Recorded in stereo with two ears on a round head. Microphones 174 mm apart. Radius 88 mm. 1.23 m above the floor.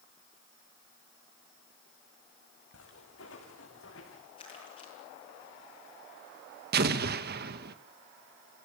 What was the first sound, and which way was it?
Footsteps, 70° left (ahead or behind).